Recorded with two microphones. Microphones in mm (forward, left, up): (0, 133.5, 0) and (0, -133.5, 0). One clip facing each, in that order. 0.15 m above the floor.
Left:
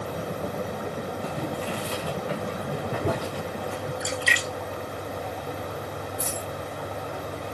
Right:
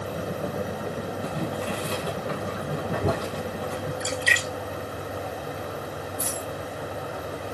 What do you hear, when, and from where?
1.2 s boiling: 45° right (ahead or behind), 2 m
4.0 s a splash: 20° right (ahead or behind), 1.3 m
6.2 s a dropped coin: 35° right (ahead or behind), 2.5 m